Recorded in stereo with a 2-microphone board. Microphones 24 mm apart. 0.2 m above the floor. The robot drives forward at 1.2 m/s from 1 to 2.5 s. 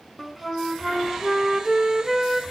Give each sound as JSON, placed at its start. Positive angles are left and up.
{"t": 0.2, "sound": "a flute", "side_deg": -10, "distance_m": 0.9}